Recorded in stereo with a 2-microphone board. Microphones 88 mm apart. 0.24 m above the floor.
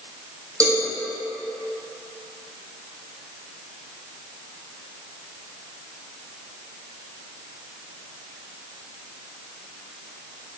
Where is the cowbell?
35° right (ahead or behind), 2.0 m.